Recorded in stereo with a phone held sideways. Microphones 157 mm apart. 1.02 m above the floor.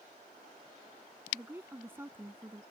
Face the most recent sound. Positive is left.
turn(degrees=-15)  # may be behind; listen again after turning